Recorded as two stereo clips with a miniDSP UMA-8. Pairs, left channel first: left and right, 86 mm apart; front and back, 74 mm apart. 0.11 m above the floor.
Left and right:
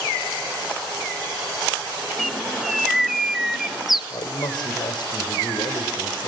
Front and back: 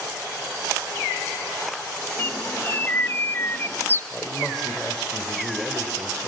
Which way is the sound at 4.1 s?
85° left.